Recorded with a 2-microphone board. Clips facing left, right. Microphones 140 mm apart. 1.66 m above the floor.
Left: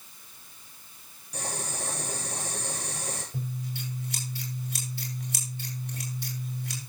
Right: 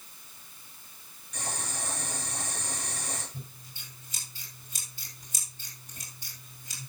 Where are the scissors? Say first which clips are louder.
Left 12 dB; 75° left (ahead or behind), 5 m.